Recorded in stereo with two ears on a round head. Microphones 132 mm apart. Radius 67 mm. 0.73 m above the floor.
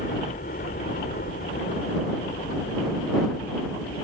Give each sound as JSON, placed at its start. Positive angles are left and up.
{"t": 0.0, "sound": "a helicopter", "side_deg": 55}